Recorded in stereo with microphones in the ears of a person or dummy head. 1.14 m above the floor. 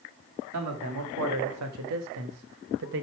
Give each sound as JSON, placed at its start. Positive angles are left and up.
{"t": 0.5, "sound": "a man speaking", "side_deg": -85, "distance_m": 2.5}